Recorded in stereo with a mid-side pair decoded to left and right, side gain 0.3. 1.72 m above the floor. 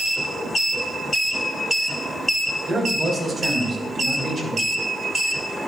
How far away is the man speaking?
About 4 m.